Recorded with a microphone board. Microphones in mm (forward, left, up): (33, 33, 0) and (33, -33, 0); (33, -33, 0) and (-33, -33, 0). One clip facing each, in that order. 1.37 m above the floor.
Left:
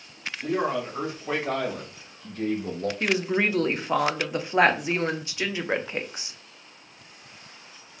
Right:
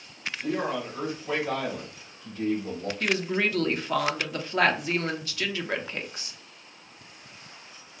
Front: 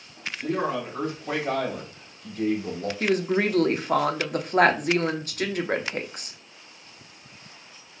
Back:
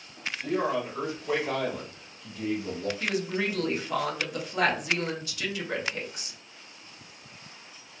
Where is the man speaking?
30° left, 2 m; by 2.9 s 55° left, 1.0 m.